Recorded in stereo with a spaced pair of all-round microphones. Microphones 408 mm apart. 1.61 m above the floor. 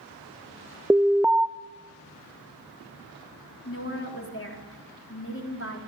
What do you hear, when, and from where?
0.9 s an alarm: 5° right (ahead or behind), 0.6 m
3.6 s a woman speaking: 30° left (ahead or behind), 4 m